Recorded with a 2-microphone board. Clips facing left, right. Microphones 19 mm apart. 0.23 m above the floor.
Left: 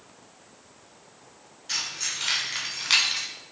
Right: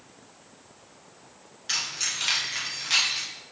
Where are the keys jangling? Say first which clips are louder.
Right 1 dB; 35° right (ahead or behind), 1.8 m; by 3.2 s 55° left (ahead or behind), 1.5 m.